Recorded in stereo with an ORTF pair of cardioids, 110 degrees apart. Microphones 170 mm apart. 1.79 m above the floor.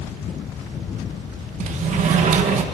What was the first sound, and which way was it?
A sliding door, 50° right.